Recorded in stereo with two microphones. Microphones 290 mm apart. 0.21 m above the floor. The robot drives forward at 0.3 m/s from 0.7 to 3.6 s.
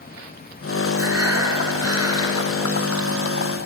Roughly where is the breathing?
Right.